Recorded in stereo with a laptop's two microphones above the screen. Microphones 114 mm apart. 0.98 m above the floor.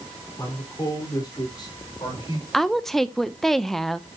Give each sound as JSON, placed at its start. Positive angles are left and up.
{"t": 0.4, "sound": "a man speaking", "side_deg": 25, "distance_m": 4.0}
{"t": 2.5, "sound": "a woman speaking", "side_deg": 5, "distance_m": 0.5}